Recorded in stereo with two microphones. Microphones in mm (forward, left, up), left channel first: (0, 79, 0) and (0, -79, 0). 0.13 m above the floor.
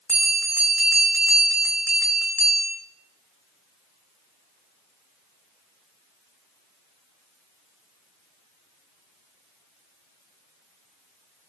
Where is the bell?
5° left (ahead or behind), 3.5 m.